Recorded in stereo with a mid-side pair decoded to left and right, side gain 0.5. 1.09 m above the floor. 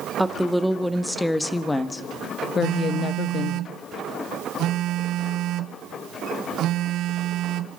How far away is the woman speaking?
About 2 m.